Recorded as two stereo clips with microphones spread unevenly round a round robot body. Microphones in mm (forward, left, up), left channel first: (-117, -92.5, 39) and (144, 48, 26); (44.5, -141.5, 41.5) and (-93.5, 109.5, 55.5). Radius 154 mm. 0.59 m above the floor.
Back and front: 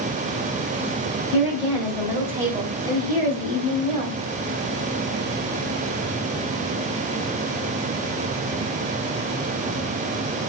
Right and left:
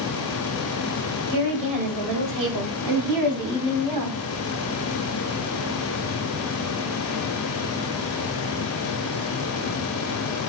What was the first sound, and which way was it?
A woman speaking, 105° left.